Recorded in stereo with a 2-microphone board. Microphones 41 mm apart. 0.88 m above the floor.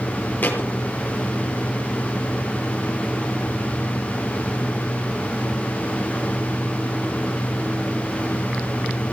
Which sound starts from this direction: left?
A thud, at 0.4 s.